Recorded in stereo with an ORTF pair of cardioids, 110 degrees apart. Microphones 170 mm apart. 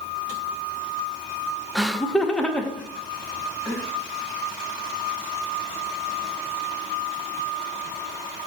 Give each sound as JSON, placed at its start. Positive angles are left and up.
{"t": 1.8, "sound": "laughter", "azimuth_deg": 0, "distance_m": 0.7}